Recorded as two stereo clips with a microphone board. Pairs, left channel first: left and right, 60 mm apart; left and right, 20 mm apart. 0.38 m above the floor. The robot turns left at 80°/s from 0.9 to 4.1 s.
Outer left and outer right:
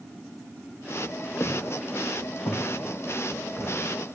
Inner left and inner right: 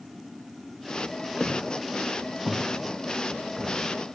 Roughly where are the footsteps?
Left.